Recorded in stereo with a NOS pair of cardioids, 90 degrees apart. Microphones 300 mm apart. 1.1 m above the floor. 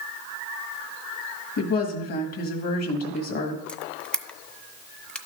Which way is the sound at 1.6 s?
55° left.